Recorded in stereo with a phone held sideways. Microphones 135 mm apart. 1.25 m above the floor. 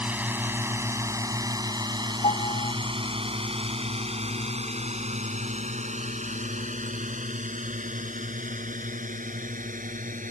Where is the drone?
10° right (ahead or behind); by 10.3 s 75° right (ahead or behind).